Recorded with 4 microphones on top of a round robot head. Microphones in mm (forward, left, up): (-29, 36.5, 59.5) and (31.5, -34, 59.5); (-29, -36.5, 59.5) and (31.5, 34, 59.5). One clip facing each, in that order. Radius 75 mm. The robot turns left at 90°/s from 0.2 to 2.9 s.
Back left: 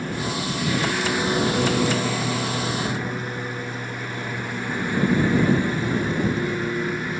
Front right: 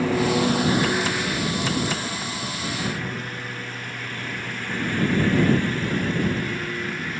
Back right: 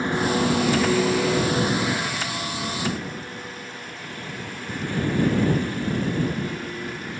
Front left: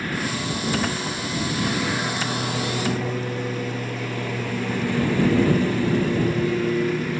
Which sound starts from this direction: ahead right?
A lawn mower, at 0.0 s.